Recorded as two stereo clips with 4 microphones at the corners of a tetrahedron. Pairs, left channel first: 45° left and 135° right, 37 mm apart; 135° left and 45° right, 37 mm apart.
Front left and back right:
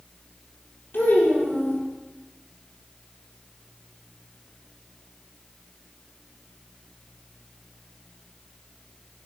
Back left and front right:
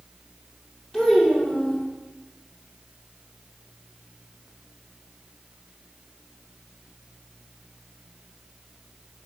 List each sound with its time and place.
0.9 s a child speaking: 65° left, 5 m